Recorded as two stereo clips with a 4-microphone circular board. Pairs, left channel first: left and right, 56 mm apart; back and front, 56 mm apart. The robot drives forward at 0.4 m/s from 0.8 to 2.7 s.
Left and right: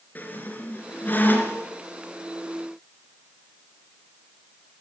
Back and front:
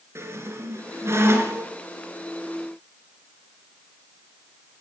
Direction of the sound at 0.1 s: 35° left.